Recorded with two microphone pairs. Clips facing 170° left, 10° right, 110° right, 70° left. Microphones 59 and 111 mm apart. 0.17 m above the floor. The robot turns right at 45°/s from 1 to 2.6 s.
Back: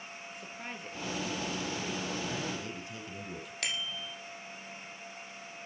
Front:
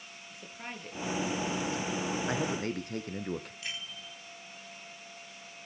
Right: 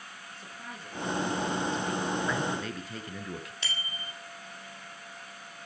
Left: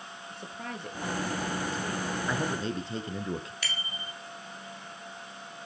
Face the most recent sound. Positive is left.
turn(degrees=-175)